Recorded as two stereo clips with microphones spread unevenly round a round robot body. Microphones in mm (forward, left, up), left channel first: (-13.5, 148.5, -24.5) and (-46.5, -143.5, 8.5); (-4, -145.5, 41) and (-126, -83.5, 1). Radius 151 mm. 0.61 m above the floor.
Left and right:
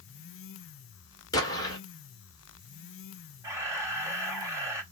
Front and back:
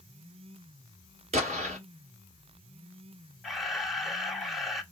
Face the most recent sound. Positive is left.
turn(degrees=180)